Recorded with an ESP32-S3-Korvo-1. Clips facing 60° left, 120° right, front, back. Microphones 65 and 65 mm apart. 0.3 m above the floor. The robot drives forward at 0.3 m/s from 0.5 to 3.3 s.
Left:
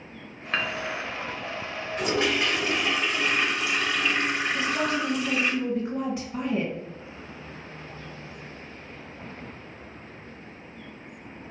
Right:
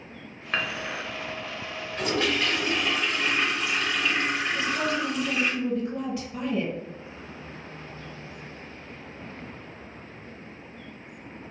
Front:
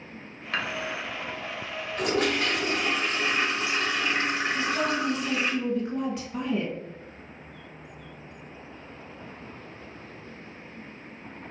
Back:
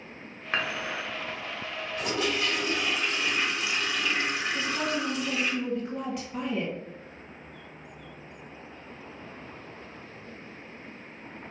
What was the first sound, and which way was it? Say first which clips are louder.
Dishes clattering: left 1 dB, even; 160° left.